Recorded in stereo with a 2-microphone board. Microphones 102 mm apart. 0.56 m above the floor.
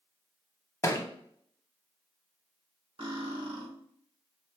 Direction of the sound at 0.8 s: 30° left (ahead or behind).